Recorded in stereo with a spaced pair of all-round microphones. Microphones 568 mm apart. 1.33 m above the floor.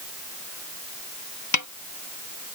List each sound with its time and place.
1.5 s a snare drum: 30° left (ahead or behind)